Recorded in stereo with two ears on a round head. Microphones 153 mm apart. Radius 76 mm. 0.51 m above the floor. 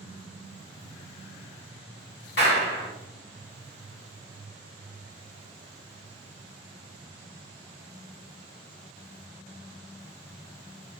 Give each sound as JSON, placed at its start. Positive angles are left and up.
{"t": 2.4, "sound": "a clap", "side_deg": 65, "distance_m": 1.3}